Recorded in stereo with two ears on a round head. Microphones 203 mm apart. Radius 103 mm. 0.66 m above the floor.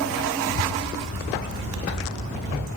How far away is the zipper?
About 5.5 m.